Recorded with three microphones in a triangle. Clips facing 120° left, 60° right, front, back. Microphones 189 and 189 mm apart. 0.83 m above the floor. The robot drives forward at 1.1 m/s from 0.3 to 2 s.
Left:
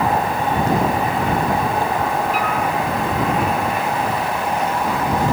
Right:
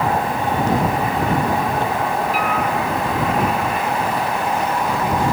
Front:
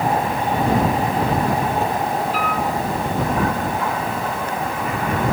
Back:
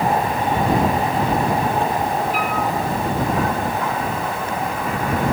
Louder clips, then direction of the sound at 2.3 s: Even, even; 105° right.